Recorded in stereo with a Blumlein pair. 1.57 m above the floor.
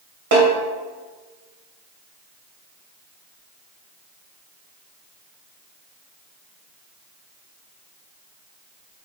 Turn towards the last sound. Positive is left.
turn(degrees=-55)